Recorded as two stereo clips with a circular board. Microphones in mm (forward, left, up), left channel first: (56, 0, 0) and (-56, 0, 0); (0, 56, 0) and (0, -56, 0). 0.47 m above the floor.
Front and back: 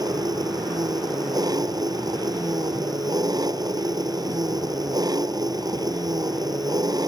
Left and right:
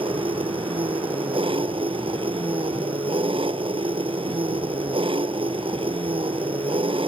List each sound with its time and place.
0.0 s an engine running: 125° right